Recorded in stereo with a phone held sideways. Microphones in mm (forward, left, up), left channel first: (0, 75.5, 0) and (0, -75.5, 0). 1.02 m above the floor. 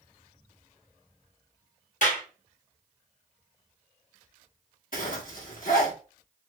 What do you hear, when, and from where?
2.0 s a clap: 55° left (ahead or behind), 1.4 m
4.9 s a zipper: 65° left (ahead or behind), 1.0 m